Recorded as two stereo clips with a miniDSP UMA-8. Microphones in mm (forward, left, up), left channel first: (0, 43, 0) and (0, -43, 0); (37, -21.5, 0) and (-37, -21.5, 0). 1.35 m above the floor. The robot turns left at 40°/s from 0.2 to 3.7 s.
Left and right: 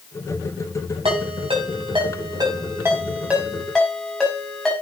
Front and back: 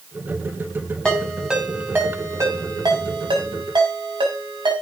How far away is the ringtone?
About 6 m.